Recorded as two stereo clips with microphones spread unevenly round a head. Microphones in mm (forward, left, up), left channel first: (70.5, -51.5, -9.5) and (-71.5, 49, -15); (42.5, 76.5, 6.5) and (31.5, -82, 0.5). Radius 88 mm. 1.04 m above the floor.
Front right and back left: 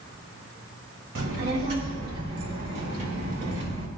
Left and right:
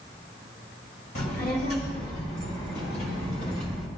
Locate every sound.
1.1 s a child speaking: 130° left, 3.5 m; by 3.9 s 145° left, 5 m